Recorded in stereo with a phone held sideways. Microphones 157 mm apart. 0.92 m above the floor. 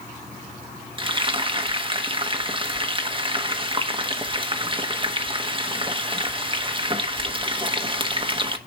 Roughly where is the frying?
Right.